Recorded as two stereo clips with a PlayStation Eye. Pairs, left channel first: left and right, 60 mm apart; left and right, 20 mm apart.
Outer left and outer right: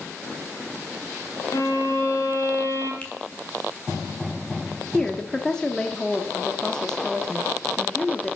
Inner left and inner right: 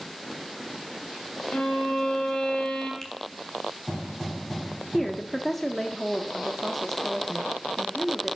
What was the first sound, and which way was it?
A violin, 60° left (ahead or behind).